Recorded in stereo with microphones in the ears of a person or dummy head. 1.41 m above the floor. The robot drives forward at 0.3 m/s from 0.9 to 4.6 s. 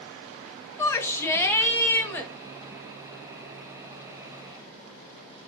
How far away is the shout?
About 1.3 m.